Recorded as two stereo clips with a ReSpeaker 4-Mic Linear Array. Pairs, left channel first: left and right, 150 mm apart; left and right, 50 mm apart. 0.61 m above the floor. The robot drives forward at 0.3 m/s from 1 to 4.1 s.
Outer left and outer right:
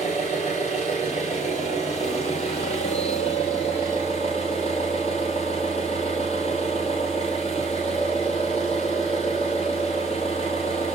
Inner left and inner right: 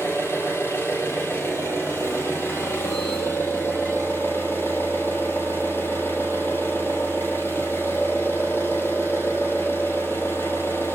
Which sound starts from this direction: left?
An engine running, at 0.0 s.